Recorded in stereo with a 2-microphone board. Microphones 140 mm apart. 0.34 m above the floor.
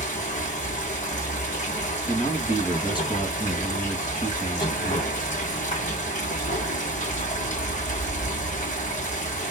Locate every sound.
0.0 s running water: 55° left (ahead or behind), 2.5 m
2.1 s a man speaking: 35° left (ahead or behind), 3 m